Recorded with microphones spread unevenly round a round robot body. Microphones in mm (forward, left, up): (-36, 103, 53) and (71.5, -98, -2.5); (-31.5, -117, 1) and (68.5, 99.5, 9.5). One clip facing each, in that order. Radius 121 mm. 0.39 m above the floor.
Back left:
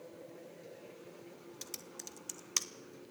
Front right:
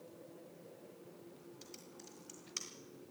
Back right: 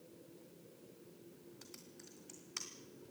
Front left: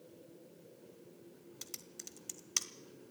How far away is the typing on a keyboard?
About 1.4 m.